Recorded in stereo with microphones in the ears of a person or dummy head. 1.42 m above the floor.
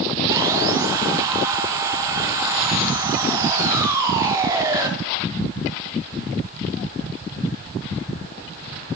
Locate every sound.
0.3 s sawing: 20° right (ahead or behind), 0.6 m